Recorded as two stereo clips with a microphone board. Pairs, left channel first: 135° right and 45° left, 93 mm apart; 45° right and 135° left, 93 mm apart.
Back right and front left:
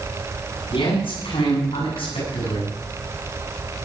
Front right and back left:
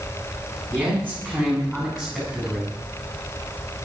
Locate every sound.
0.7 s a man speaking: 155° right, 8 m; by 2.8 s 140° right, 7.5 m